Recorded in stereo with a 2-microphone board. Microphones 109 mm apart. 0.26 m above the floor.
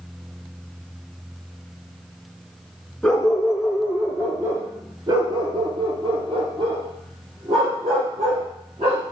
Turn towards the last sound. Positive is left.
turn(degrees=-65)  # may be behind; listen again after turning